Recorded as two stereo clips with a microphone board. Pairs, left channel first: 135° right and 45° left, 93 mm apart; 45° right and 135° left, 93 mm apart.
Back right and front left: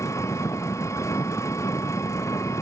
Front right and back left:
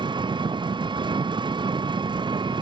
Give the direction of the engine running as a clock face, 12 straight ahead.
6 o'clock.